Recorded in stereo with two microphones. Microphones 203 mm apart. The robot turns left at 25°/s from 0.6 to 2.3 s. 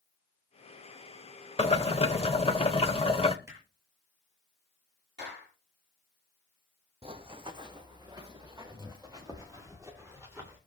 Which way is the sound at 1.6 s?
30° left (ahead or behind).